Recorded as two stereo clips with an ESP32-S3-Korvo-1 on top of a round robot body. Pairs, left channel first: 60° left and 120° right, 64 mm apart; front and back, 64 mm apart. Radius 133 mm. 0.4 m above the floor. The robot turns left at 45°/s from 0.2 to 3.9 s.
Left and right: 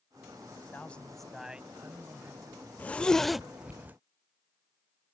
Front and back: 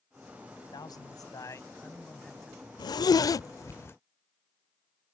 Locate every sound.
0.7 s a man speaking: 5° right; by 2.6 s 90° right
2.8 s a zipper: 5° right; by 4.0 s 55° right